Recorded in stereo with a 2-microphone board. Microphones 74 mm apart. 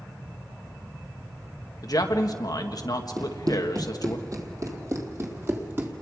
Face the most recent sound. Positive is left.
turn(degrees=-30)  # may be behind; listen again after turning